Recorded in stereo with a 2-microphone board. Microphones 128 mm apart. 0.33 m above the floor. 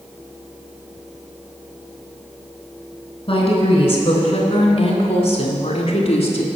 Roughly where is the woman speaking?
Left.